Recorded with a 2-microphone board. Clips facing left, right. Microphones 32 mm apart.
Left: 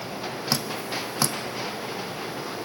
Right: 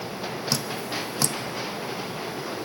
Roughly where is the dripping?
Centre.